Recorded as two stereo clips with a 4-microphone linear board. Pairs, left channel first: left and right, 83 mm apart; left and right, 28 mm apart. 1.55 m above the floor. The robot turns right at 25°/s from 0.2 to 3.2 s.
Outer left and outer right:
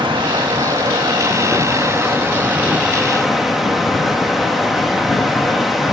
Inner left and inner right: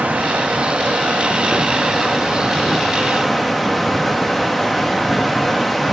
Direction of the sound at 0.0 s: 75° right.